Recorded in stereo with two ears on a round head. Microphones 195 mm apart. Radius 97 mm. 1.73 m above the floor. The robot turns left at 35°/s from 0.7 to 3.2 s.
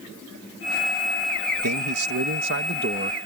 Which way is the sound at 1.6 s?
90° right.